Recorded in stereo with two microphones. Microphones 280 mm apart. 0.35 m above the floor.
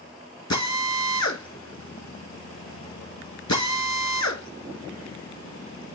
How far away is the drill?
About 2.5 m.